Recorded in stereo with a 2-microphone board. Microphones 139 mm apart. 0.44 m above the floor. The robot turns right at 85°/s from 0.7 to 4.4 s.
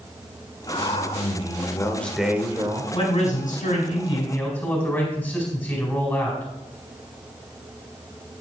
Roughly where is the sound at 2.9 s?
Ahead left.